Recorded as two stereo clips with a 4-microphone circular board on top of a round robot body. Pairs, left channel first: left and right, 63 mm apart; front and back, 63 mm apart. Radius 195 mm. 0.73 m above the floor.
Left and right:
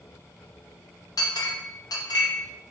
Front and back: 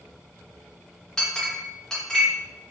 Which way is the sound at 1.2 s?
80° left.